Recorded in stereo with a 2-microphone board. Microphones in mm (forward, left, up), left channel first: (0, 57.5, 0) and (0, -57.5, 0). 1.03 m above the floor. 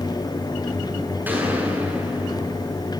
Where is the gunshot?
15° right (ahead or behind), 8 m.